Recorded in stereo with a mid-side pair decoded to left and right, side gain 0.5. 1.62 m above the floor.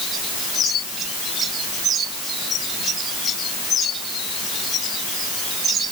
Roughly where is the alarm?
No alarm in this recording.